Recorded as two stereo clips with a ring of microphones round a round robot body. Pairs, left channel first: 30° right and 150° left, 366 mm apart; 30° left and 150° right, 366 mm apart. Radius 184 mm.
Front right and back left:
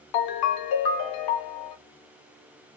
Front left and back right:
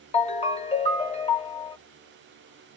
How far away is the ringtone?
About 0.9 m.